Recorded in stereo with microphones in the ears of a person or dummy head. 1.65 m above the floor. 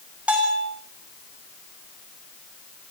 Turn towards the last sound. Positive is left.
turn(degrees=-5)  # may be behind; listen again after turning